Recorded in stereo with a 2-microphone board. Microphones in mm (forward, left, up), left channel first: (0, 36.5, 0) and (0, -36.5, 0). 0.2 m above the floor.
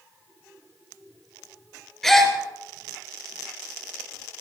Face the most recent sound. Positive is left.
turn(degrees=0)  # may be behind; listen again after turning